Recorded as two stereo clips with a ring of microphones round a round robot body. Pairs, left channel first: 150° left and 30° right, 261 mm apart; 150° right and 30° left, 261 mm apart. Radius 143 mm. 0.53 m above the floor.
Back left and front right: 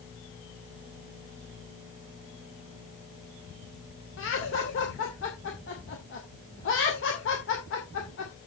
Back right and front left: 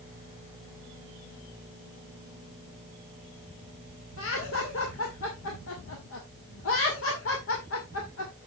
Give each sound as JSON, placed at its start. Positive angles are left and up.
{"t": 4.2, "sound": "laughter", "azimuth_deg": -175, "distance_m": 2.0}